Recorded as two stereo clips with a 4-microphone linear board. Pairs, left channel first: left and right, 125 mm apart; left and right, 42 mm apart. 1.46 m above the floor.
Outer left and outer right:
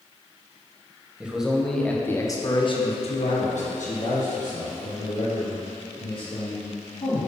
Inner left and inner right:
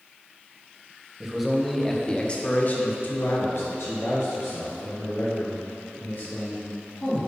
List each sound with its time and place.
1.2 s a man speaking: 10° right (ahead or behind), 1.4 m; by 7.3 s 75° left (ahead or behind), 3.5 m